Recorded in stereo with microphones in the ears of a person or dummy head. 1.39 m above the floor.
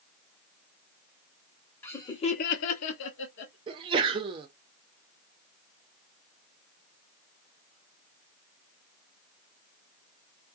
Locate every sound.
1.8 s laughter: 10° left (ahead or behind), 0.9 m; by 3.6 s 55° left (ahead or behind), 1.1 m
3.7 s a sneeze: 25° right (ahead or behind), 0.6 m